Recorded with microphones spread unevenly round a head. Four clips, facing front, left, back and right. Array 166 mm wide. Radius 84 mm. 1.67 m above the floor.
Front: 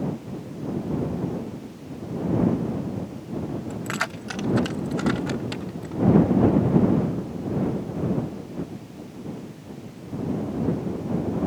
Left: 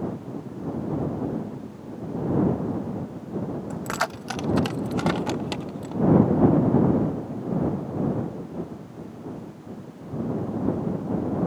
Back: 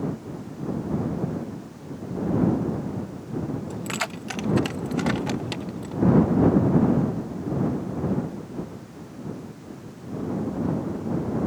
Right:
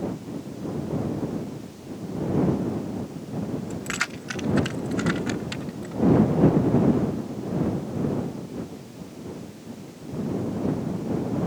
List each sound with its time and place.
3.7 s keys jangling: 75° left; by 6.0 s 100° left